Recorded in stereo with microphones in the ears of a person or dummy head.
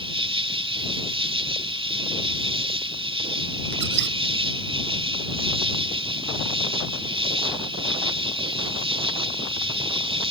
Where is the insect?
20° right (ahead or behind).